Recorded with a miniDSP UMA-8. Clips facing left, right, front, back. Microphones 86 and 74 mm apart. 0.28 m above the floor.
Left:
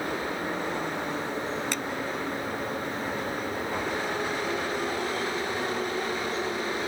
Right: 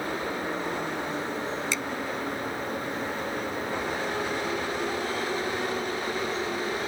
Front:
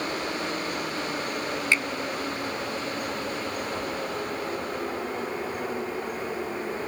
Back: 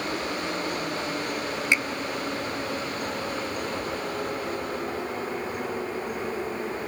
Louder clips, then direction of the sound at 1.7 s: Right 1 dB, back 1 dB; 110° left.